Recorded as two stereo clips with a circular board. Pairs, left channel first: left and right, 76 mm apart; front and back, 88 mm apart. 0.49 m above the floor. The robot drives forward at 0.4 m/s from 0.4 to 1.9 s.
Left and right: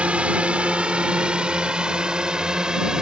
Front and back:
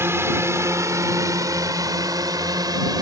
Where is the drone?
150° right; by 3.0 s 165° right.